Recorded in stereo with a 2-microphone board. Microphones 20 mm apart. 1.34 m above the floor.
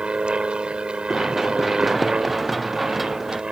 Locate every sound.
0.0 s an aircraft: 50° right (ahead or behind); by 3.5 s 45° right (ahead or behind)
1.1 s running footsteps: 5° right (ahead or behind); by 3.4 s 10° right (ahead or behind)